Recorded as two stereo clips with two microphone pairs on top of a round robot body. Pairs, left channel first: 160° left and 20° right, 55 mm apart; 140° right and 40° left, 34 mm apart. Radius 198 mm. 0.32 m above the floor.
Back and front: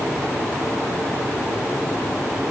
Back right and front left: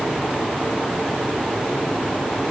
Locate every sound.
Only background noise.